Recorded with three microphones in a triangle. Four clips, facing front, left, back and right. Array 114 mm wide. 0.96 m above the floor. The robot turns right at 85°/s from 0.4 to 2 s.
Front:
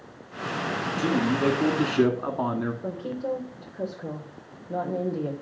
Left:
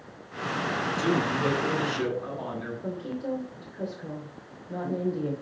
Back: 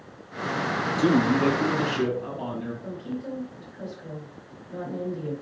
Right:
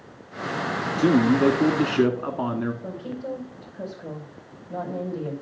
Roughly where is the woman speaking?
Ahead.